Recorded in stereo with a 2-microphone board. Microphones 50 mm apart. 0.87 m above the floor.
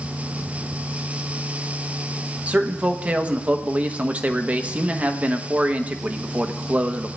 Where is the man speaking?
30° right (ahead or behind), 0.9 m.